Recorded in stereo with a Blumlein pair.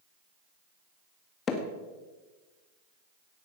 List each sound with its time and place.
1.5 s hammering: 25° left, 1.8 m